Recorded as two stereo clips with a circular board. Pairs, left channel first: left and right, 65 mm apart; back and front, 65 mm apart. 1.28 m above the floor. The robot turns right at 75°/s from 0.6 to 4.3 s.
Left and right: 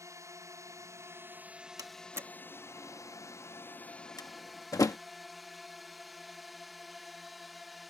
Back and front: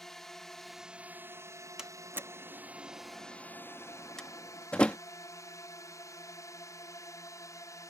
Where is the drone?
95° right; by 7.9 s straight behind.